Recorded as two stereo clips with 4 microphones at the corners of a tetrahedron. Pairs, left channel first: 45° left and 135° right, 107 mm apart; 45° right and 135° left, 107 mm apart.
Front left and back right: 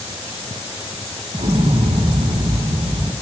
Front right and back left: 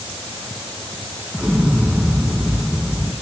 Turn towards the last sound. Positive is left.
turn(degrees=-145)